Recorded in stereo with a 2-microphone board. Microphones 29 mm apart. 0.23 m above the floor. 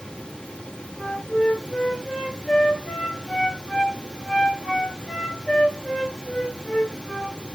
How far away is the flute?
About 3.5 m.